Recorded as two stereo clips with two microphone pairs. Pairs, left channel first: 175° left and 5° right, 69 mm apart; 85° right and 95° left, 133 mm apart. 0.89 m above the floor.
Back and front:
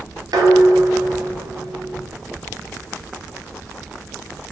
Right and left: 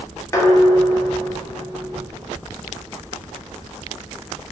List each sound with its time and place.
0.3 s dishes clattering: 15° right, 0.5 m